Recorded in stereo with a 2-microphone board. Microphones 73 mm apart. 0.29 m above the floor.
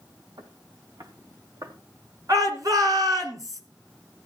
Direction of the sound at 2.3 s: 55° right (ahead or behind).